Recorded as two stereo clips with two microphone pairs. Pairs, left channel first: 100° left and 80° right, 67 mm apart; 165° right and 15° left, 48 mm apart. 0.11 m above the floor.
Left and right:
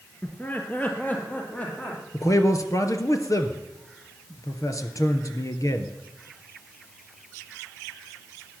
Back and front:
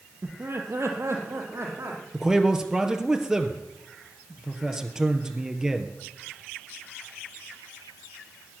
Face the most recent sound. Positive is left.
turn(degrees=95)